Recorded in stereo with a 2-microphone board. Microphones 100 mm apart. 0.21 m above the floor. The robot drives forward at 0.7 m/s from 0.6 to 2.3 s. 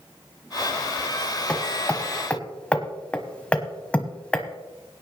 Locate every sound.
1.5 s hammering: 10° left (ahead or behind), 1.4 m; by 4.5 s 15° left (ahead or behind), 1.1 m